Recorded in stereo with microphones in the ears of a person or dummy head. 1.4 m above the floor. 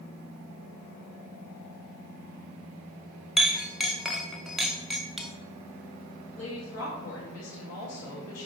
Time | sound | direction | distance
3.4 | a clink | centre (ahead or behind) | 0.5 m
6.3 | a woman speaking | 80° left | 3 m